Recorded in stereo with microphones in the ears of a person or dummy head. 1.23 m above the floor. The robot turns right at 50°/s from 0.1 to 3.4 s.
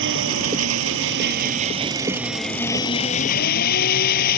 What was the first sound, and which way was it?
An engine running, 115° right.